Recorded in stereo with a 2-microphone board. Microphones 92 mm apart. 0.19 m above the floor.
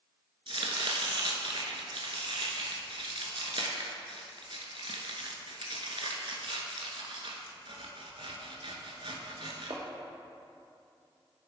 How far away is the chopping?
About 0.7 m.